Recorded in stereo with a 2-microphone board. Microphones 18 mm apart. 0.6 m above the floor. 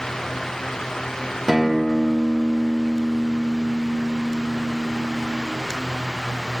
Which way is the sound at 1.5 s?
30° right (ahead or behind).